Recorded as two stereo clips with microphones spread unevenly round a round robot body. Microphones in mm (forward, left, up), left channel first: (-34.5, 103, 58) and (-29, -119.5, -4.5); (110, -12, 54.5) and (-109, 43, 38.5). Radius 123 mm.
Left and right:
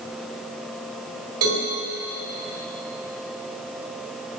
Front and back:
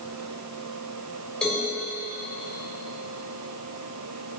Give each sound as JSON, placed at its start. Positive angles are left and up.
{"t": 1.4, "sound": "a cowbell", "azimuth_deg": -100, "distance_m": 2.5}